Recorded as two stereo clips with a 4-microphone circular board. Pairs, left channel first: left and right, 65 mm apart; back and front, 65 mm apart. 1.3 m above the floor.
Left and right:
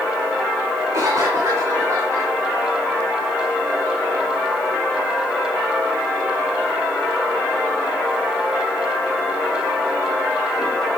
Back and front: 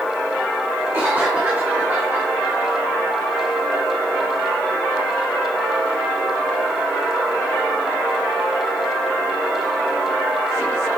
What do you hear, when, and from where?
0.9 s a cough: 60° right, 2.5 m